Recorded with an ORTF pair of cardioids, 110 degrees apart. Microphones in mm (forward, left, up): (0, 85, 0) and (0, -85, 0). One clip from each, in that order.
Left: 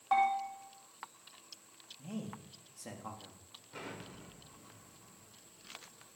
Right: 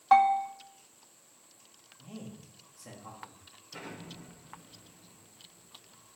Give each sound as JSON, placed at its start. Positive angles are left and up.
{"t": 0.1, "sound": "a bell", "azimuth_deg": -40, "distance_m": 2.5}
{"t": 2.0, "sound": "a man speaking", "azimuth_deg": 30, "distance_m": 3.5}
{"t": 3.7, "sound": "an explosion", "azimuth_deg": 0, "distance_m": 5.5}